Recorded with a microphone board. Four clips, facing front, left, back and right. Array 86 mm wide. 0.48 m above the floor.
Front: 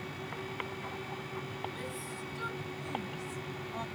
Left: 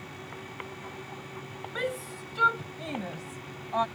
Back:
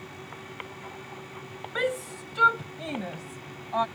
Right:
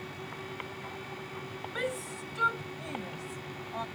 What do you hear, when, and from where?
1.8 s a shout: 175° left; by 3.9 s 145° left